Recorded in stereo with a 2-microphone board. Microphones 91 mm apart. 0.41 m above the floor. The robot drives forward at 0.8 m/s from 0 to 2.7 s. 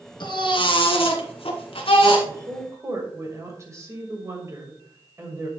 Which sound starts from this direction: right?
A woman speaking, at 2.3 s.